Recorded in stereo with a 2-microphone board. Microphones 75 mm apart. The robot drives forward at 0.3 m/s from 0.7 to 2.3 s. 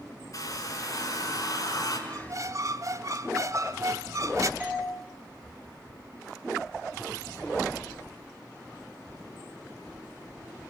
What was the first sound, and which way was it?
A hair dryer, 45° left (ahead or behind).